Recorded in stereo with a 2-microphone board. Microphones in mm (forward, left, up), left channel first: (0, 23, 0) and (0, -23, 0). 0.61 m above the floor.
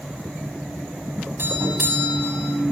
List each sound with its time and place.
1.4 s a doorbell: 50° right (ahead or behind), 7 m